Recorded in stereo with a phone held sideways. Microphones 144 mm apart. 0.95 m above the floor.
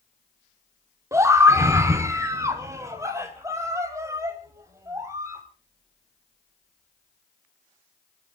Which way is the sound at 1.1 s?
20° right (ahead or behind).